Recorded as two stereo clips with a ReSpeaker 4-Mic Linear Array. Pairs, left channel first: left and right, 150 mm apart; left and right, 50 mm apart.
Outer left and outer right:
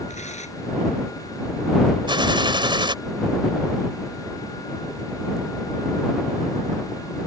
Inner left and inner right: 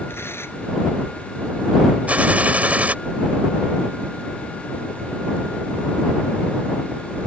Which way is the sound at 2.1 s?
30° right (ahead or behind).